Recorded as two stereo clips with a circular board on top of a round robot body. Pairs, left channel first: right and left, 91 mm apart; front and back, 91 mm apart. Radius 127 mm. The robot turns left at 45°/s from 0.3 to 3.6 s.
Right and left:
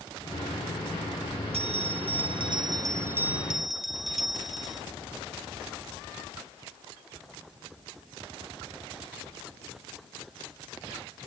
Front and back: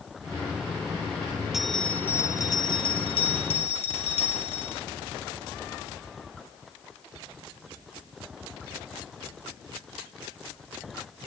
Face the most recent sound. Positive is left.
turn(degrees=0)